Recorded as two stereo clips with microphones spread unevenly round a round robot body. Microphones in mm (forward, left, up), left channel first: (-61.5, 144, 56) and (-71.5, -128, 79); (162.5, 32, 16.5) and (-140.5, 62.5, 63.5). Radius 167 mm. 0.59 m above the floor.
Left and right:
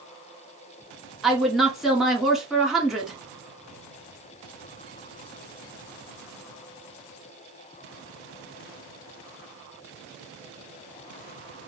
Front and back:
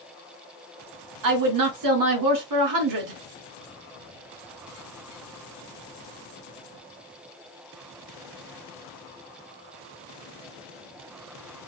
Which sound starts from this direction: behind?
A woman speaking, at 1.2 s.